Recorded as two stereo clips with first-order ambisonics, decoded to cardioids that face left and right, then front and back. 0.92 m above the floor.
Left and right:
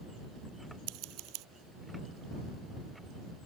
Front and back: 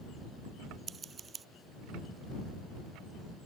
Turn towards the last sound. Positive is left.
turn(degrees=-115)